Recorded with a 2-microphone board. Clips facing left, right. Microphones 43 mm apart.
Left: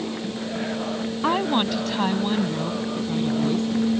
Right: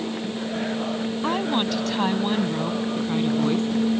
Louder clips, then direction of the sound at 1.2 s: Left 3 dB; 20° left (ahead or behind).